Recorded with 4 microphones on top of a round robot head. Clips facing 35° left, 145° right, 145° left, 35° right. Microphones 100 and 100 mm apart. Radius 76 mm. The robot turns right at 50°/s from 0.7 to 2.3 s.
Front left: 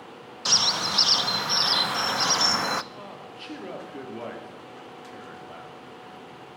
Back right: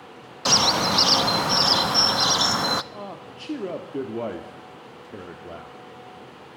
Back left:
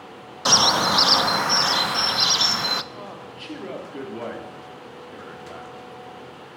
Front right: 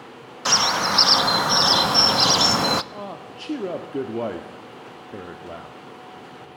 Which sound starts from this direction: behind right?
A bird, at 0.5 s.